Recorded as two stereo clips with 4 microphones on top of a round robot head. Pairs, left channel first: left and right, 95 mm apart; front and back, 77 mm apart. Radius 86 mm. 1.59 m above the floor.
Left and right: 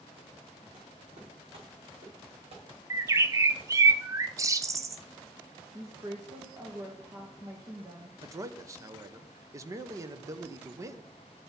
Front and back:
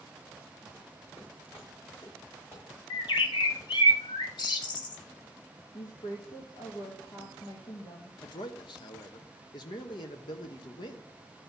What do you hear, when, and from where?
0.7 s footsteps: 65° right, 5 m; by 3.7 s 70° right, 6.5 m
2.9 s a bird: 35° right, 0.9 m
5.7 s a woman speaking: 35° right, 2.0 m
8.2 s a man speaking: 35° right, 1.0 m